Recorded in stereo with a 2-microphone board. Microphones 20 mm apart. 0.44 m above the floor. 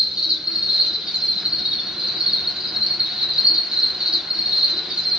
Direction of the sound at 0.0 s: 55° right (ahead or behind).